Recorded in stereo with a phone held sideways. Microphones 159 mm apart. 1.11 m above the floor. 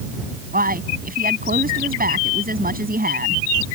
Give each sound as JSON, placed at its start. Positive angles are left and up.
{"t": 0.5, "sound": "a man speaking", "side_deg": -75}